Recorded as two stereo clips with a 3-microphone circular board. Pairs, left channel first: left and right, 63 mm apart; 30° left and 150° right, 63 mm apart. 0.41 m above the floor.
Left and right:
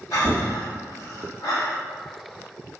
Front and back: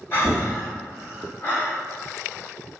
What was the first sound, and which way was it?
Breathing, 80° left.